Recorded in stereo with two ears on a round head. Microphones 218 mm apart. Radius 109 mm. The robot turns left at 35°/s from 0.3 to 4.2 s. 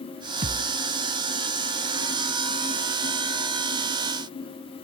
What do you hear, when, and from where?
0.4 s a thud: 30° right (ahead or behind), 0.8 m; by 0.8 s 45° right (ahead or behind), 0.8 m